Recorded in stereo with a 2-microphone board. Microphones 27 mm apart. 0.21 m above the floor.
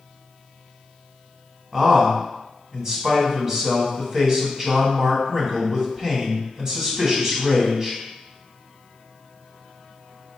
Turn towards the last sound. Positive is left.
turn(degrees=-25)  # may be behind; listen again after turning